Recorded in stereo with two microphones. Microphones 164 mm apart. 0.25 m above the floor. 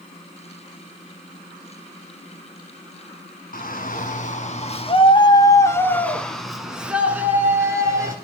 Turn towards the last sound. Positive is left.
turn(degrees=-20)  # may be behind; listen again after turning